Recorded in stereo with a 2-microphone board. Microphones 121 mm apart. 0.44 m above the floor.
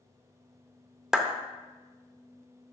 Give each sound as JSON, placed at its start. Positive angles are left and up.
{"t": 1.1, "sound": "a clap", "side_deg": -5, "distance_m": 0.7}